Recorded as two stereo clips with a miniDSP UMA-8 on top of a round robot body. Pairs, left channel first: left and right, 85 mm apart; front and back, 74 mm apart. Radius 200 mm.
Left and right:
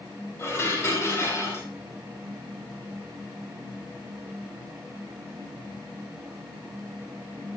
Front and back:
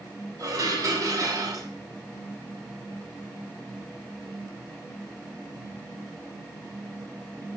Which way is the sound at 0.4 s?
150° left.